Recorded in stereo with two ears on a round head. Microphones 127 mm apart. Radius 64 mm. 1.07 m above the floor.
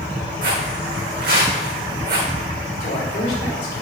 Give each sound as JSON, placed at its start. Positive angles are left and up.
{"t": 0.4, "sound": "footsteps", "side_deg": -70, "distance_m": 3.5}
{"t": 2.8, "sound": "a man speaking", "side_deg": 60, "distance_m": 2.5}